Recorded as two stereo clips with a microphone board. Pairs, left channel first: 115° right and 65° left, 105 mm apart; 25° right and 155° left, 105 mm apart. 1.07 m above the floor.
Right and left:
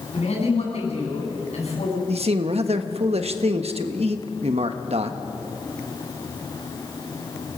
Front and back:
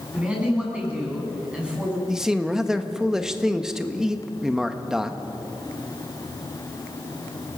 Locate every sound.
0.1 s a man speaking: 125° right, 8.5 m
2.1 s a man speaking: 75° left, 1.4 m